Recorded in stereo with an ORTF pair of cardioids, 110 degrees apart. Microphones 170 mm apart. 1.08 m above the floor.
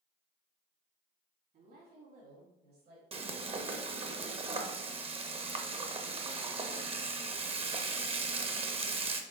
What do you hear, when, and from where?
1.5 s a woman speaking: 60° right, 2.5 m; by 3.0 s 70° right, 3 m
3.1 s frying: 35° right, 0.9 m